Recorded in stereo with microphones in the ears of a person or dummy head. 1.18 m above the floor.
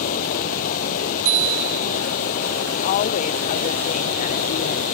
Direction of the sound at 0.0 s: 45° left (ahead or behind).